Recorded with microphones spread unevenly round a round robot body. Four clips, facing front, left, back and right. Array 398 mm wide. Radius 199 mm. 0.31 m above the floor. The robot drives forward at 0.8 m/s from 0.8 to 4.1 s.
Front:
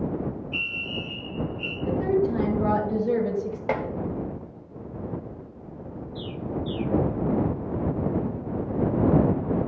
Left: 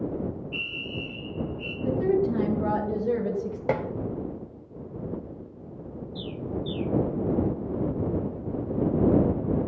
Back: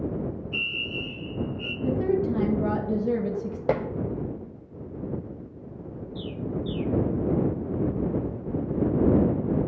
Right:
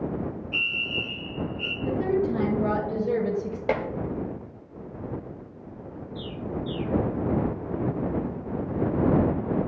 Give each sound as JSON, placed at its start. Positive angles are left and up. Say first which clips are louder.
{"t": 0.5, "sound": "a fire alarm", "louder": "right 2 dB, even", "azimuth_deg": -120, "distance_m": 5.5}
{"t": 1.8, "sound": "a woman speaking", "louder": "left 1 dB, front 1 dB", "azimuth_deg": 165, "distance_m": 3.0}
{"t": 3.7, "sound": "dishes clattering", "louder": "right 1 dB, back 2 dB", "azimuth_deg": 175, "distance_m": 0.8}
{"t": 6.2, "sound": "a bird", "louder": "even, even", "azimuth_deg": 95, "distance_m": 0.6}